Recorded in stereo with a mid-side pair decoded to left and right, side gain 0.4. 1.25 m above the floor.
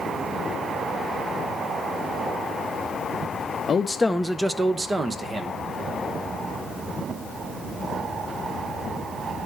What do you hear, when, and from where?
3.7 s a man speaking: 55° left, 0.5 m; by 5.6 s 40° right, 1.4 m